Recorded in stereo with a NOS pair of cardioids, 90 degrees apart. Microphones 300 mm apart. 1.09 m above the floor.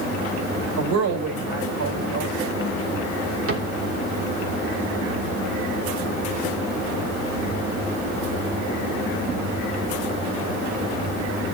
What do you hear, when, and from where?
0.8 s a woman speaking: 65° right, 4 m
3.5 s a cupboard door: 45° right, 3 m